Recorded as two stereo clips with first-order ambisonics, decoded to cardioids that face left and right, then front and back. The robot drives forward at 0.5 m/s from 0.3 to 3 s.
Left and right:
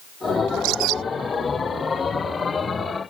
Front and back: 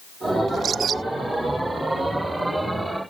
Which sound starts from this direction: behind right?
A bird, at 0.5 s.